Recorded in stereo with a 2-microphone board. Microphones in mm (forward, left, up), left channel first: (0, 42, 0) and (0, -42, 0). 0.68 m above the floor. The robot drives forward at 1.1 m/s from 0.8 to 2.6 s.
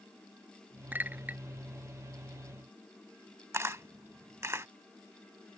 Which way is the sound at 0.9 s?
20° right (ahead or behind).